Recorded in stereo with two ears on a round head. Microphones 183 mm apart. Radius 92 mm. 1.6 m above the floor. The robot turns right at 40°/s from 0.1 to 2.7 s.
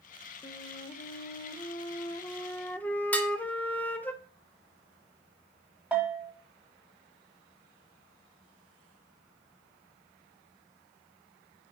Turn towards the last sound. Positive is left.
turn(degrees=-10)  # may be behind; listen again after turning